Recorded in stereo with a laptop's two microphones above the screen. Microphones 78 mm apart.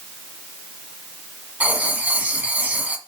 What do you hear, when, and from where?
1.6 s writing: 20° right (ahead or behind), 1.5 m